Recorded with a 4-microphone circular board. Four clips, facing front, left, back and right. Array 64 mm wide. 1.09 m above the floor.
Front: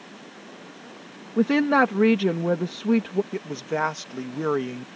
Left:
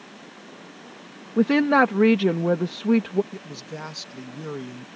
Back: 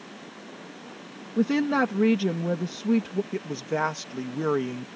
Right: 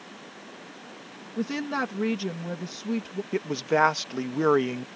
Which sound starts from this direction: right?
A man speaking, at 3.3 s.